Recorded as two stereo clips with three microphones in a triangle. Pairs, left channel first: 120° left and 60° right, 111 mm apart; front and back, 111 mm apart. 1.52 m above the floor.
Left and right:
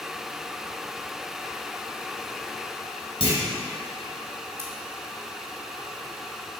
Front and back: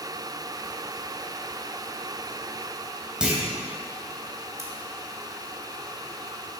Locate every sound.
3.2 s a clunk: 100° left, 3 m
4.6 s scissors: 120° right, 1.9 m